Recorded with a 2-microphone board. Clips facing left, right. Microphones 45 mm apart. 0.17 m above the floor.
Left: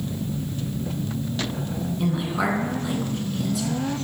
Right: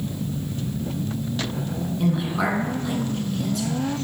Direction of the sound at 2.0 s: 5° left (ahead or behind).